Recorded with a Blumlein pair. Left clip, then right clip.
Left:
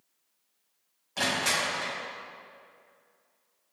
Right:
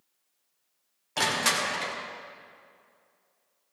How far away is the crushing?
About 2 m.